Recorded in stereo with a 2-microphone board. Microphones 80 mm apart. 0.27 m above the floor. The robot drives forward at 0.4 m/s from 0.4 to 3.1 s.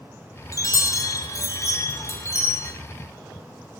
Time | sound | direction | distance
0.5 | a chime | 45° left (ahead or behind) | 1.9 m